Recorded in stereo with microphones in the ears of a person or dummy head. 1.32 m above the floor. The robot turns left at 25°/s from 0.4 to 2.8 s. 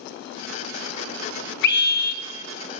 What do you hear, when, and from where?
1.6 s a scream: 70° left (ahead or behind), 0.8 m; by 2.2 s 55° left (ahead or behind), 0.8 m